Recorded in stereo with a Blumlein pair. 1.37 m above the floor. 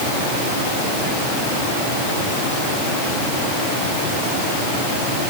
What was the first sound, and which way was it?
Only background noise.